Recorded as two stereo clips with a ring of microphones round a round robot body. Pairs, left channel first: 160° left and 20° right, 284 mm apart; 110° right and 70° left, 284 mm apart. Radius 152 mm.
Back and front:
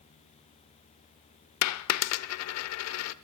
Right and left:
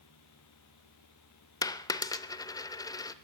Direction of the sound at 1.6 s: 170° left.